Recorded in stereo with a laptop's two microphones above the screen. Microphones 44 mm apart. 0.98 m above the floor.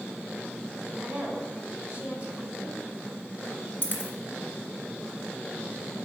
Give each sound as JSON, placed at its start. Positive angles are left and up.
{"t": 1.0, "sound": "a woman speaking", "side_deg": -25, "distance_m": 4.0}
{"t": 3.8, "sound": "a dropped coin", "side_deg": 45, "distance_m": 2.0}